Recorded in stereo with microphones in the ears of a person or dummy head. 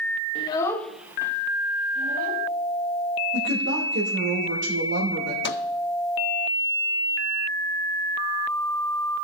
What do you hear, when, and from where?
0.3 s a child speaking: 35° left (ahead or behind), 0.9 m; by 2.5 s 50° right (ahead or behind), 1.6 m
3.3 s a woman speaking: 65° right (ahead or behind), 2.5 m
5.4 s a microwave: 55° left (ahead or behind), 0.5 m